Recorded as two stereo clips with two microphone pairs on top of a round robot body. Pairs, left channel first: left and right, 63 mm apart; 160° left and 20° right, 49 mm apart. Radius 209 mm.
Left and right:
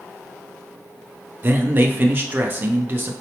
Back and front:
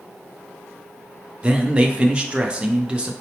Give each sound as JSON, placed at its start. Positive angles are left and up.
{"t": 1.4, "sound": "a man speaking", "azimuth_deg": -80, "distance_m": 0.6}